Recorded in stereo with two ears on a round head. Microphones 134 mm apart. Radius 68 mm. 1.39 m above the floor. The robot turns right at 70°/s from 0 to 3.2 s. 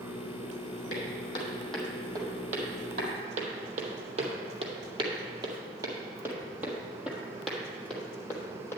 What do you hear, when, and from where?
0.9 s footsteps: 60° left (ahead or behind), 3.5 m; by 8.8 s 15° left (ahead or behind), 2.5 m